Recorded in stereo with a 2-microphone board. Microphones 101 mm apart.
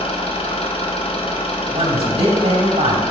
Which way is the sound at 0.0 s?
65° left (ahead or behind).